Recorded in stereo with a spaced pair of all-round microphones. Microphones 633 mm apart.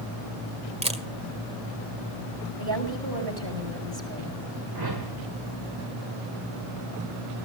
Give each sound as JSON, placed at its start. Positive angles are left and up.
{"t": 0.8, "sound": "a camera shutter", "side_deg": -10, "distance_m": 1.5}
{"t": 2.6, "sound": "a woman speaking", "side_deg": -35, "distance_m": 6.0}
{"t": 4.8, "sound": "a whoosh", "side_deg": -35, "distance_m": 1.6}